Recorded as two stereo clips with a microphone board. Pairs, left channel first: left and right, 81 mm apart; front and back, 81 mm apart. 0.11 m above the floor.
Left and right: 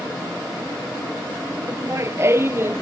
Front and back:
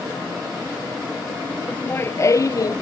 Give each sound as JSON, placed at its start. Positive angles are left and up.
{"t": 1.7, "sound": "laughter", "azimuth_deg": -60}